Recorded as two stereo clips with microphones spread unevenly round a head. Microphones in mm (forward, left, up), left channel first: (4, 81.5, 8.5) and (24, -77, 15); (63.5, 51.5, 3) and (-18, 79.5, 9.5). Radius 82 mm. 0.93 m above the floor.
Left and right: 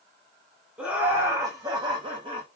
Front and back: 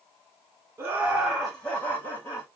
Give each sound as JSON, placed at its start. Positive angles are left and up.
{"t": 0.8, "sound": "laughter", "azimuth_deg": -160, "distance_m": 0.8}